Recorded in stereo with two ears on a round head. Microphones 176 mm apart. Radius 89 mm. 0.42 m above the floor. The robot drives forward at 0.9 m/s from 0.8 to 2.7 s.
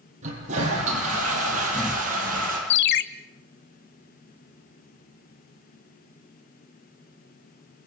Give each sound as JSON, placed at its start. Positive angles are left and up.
{"t": 0.2, "sound": "a toilet flushing", "side_deg": -35, "distance_m": 8.5}
{"t": 2.7, "sound": "a ringtone", "side_deg": 60, "distance_m": 1.2}